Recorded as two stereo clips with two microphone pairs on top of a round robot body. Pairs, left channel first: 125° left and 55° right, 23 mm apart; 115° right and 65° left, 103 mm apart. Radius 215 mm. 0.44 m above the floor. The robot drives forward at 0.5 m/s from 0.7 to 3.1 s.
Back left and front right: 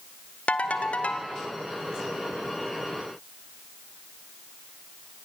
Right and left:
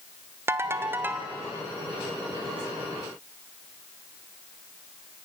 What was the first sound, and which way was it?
A ringtone, 130° left.